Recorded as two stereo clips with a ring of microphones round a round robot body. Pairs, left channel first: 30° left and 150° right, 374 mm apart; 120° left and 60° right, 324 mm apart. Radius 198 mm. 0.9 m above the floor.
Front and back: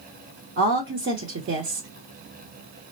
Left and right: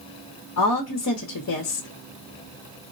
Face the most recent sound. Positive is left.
turn(degrees=155)